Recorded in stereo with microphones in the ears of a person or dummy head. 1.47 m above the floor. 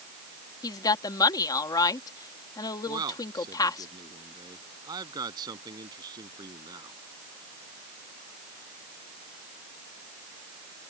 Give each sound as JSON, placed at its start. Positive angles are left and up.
{"t": 0.6, "sound": "a woman speaking", "side_deg": 20}
{"t": 2.9, "sound": "a man speaking", "side_deg": -20}